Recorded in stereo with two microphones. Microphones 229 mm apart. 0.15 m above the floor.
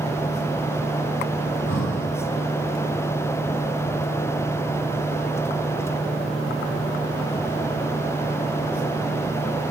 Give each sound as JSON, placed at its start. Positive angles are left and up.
{"t": 1.5, "sound": "breathing", "side_deg": 60, "distance_m": 2.0}